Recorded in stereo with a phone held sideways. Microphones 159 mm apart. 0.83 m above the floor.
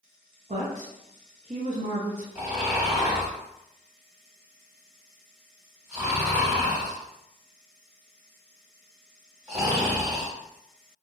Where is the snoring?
15° right (ahead or behind), 1.6 m.